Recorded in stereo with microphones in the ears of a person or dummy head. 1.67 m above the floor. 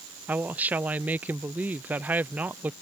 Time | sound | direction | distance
0.3 | a woman speaking | 10° right (ahead or behind) | ?